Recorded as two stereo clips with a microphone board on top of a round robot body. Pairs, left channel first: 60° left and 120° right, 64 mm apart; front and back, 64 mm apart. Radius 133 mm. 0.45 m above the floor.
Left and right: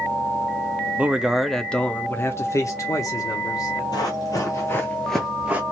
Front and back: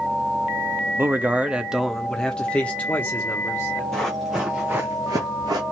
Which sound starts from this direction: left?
Running footsteps, at 3.9 s.